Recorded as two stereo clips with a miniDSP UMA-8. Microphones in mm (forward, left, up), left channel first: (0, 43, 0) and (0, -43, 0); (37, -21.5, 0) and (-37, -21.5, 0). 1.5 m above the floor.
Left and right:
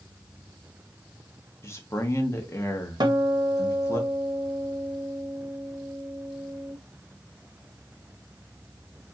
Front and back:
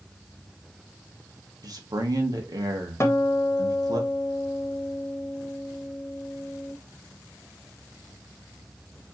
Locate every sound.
1.6 s a man speaking: 150° left, 1.3 m
3.0 s a guitar: 55° right, 1.1 m